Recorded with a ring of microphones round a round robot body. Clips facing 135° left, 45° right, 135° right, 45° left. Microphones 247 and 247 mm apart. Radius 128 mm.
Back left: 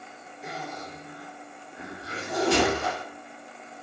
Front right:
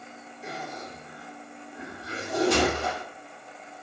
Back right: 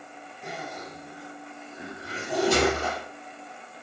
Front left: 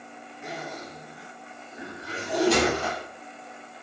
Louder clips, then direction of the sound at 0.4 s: Even, front left 1 dB; 15° left.